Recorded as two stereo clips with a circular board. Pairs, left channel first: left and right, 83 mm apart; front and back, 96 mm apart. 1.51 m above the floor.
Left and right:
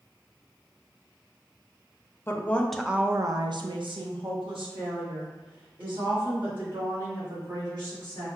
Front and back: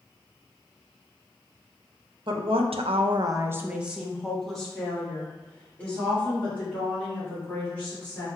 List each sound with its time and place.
2.3 s a woman speaking: 150° left, 0.7 m; by 8.3 s 70° right, 4 m